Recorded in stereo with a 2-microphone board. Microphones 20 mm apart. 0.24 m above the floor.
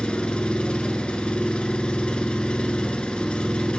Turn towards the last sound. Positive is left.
turn(degrees=65)  # may be behind; listen again after turning